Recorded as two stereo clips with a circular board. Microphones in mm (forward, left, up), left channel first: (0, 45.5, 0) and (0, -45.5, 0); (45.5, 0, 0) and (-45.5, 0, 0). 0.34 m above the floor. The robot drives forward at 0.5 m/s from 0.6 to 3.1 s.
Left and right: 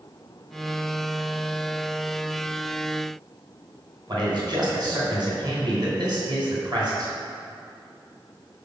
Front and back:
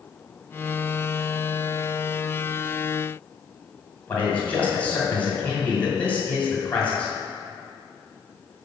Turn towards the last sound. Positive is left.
turn(degrees=-70)